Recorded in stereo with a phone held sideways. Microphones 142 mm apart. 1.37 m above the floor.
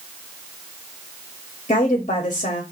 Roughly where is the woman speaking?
Left.